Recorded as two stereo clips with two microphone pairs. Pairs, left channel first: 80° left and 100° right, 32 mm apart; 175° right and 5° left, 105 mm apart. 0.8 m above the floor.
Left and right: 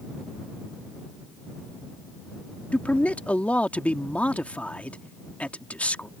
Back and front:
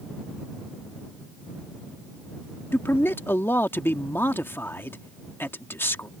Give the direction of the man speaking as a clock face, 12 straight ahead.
8 o'clock.